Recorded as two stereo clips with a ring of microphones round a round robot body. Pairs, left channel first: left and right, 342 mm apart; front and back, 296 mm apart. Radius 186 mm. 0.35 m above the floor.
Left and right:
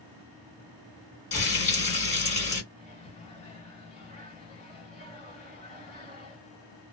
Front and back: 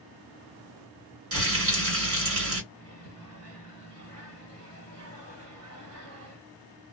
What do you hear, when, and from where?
1.3 s frying: 155° left, 1.7 m
2.7 s a microwave: 160° left, 1.7 m